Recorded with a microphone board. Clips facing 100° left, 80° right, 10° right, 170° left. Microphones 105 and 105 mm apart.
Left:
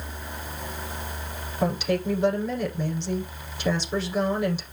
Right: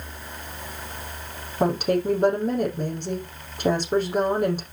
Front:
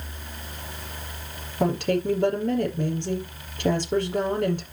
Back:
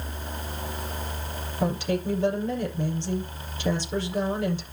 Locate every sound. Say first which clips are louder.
1.6 s a woman speaking: right 3 dB, front 3 dB; 40° right, 6 m